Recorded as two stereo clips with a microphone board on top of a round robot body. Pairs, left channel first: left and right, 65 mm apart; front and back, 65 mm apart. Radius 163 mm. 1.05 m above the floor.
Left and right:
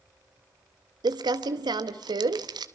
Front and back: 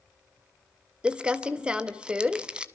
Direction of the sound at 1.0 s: 105° right.